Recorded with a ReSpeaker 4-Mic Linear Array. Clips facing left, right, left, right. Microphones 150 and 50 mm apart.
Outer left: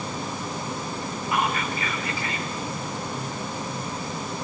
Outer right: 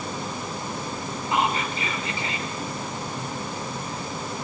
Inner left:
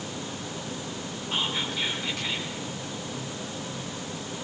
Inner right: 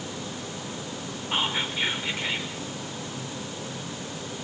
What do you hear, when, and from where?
1.3 s whispering: 25° right (ahead or behind), 4 m